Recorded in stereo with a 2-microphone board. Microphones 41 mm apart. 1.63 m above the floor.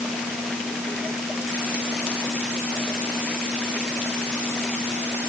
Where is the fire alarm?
No fire alarm in this recording.